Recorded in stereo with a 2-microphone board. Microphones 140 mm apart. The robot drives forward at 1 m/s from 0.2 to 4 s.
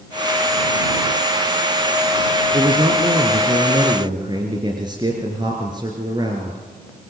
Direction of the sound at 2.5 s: 45° right (ahead or behind).